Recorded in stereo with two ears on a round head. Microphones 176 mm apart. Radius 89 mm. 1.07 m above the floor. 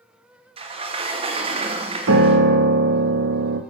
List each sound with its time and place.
0.6 s a sliding door: 30° right (ahead or behind), 0.6 m
2.1 s a piano: 65° right (ahead or behind), 0.7 m